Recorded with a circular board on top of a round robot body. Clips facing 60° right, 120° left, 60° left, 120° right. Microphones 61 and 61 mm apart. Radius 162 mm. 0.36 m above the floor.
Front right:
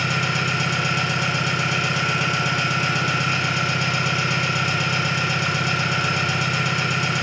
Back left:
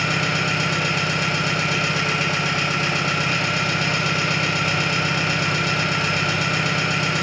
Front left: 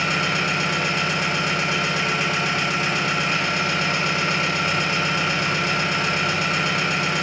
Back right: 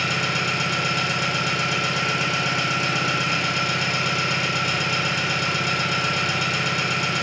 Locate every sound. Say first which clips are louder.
0.0 s an engine running: back left 1 dB, front left 2 dB; 85° left, 1.5 m